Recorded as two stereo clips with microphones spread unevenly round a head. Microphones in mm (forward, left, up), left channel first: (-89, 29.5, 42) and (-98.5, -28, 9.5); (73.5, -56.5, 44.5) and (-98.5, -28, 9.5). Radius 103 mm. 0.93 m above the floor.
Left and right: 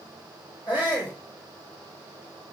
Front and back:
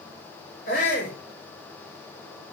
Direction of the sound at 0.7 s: 35° left.